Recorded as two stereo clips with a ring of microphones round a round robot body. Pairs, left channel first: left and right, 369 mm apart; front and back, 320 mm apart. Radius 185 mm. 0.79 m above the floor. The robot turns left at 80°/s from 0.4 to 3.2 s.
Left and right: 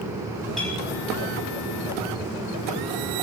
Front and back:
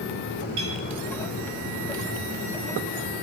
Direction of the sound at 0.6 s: Straight behind.